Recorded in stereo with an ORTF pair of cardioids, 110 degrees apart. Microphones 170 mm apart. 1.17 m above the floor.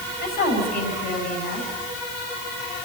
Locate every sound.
0.2 s a woman speaking: 70° left, 7 m